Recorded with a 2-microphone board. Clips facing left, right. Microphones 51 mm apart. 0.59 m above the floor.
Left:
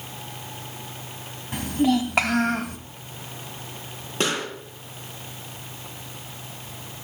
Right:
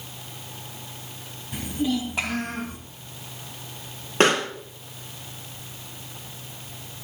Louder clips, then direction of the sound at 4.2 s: Right 6 dB; 45° right (ahead or behind).